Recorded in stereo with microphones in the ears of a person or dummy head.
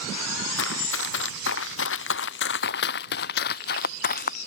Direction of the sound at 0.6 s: 80° left.